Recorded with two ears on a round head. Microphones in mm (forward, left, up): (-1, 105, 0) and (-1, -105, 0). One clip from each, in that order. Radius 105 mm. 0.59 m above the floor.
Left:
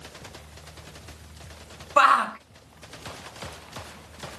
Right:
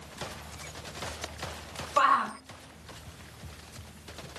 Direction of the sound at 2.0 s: 50° left (ahead or behind).